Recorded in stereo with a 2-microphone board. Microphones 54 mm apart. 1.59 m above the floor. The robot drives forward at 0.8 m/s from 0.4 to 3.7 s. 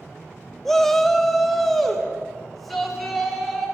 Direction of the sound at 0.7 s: 5° left (ahead or behind).